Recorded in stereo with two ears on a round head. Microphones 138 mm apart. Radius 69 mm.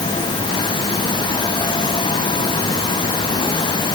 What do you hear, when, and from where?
Only background noise.